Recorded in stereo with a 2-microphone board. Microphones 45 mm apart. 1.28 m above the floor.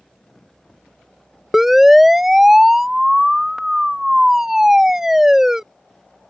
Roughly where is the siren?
Centre.